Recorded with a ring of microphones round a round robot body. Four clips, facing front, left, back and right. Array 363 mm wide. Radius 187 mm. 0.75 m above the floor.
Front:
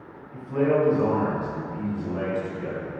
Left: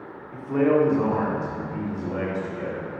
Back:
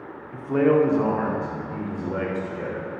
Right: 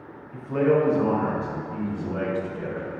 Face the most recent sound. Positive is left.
turn(degrees=165)